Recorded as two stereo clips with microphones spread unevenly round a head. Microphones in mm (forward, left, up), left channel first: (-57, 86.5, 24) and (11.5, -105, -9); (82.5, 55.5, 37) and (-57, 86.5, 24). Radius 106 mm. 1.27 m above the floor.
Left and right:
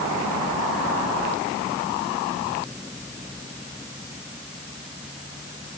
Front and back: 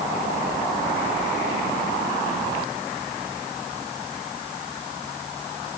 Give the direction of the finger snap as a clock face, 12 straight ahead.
No finger snap in this recording.